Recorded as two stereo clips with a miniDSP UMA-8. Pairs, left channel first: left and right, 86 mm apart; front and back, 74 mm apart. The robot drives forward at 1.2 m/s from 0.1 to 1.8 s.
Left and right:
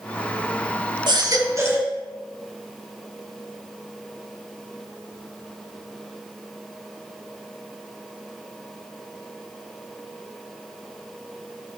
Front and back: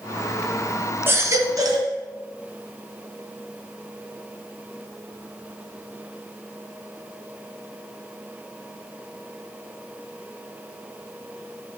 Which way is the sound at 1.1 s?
120° right.